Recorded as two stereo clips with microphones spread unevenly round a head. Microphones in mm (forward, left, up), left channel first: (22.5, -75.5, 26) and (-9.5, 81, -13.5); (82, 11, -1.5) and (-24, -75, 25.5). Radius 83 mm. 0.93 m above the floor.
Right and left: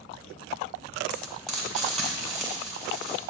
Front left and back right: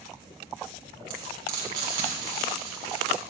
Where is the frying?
160° right, 1.9 m.